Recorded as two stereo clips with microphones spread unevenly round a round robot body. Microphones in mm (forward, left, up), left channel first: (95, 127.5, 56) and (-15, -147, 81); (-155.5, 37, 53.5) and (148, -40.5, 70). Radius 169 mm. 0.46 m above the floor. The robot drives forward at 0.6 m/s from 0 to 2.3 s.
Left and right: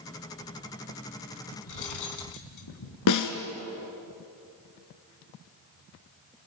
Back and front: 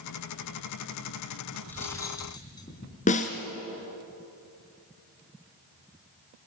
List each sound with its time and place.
1.7 s cutlery clinking: 80° left, 3 m; by 3.0 s 90° left, 3 m
3.1 s a snare drum: 100° left, 1.9 m